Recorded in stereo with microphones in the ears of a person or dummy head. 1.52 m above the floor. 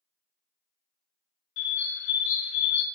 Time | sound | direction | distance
1.6 | a bird | 70° left (ahead or behind) | 0.6 m